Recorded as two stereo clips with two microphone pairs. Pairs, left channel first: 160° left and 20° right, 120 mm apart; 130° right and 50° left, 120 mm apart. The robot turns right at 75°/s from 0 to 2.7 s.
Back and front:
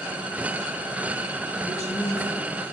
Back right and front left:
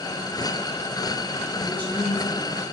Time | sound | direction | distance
1.6 | a woman speaking | 145° left | 2.5 m